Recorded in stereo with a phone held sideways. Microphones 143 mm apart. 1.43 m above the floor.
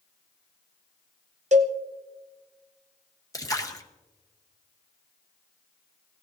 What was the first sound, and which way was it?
A cowbell, 55° right (ahead or behind).